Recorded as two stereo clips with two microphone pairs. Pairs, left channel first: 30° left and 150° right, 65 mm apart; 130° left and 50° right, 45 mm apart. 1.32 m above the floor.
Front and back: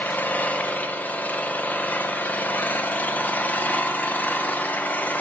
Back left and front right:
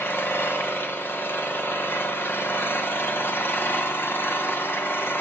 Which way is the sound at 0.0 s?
95° left.